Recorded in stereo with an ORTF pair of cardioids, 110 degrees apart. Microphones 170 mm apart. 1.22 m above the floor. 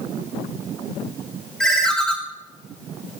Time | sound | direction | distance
1.6 | a ringtone | 5° left | 1.8 m